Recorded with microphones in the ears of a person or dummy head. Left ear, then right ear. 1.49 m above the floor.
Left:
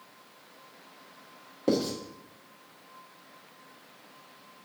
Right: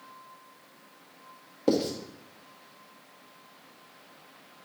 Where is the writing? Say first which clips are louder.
Right 1 dB; 20° right (ahead or behind), 1.4 m.